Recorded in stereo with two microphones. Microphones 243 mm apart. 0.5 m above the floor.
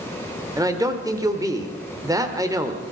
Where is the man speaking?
15° right (ahead or behind), 1.6 m.